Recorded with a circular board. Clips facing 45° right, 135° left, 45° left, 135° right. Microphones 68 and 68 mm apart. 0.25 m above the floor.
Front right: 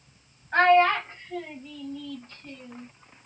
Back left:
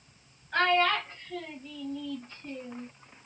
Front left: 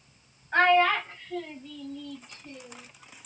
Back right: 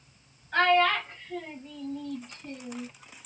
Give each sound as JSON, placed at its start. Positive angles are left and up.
{"t": 0.5, "sound": "a child speaking", "azimuth_deg": -10, "distance_m": 0.8}